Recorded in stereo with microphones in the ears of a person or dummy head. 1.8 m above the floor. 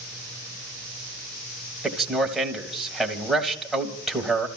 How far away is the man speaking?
About 1.8 m.